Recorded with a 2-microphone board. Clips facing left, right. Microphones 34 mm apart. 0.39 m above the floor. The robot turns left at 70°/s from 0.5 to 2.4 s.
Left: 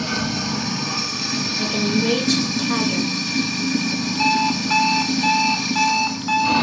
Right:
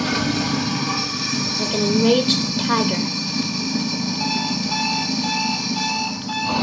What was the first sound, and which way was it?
Running water, 120° right.